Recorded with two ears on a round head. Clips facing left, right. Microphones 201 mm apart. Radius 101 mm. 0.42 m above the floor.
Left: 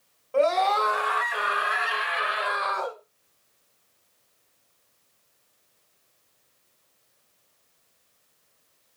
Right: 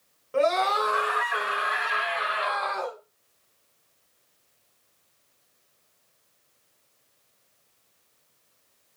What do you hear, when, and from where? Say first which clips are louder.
0.3 s a scream: left 2 dB; 15° right (ahead or behind), 1.6 m; by 3.0 s 20° left (ahead or behind), 1.7 m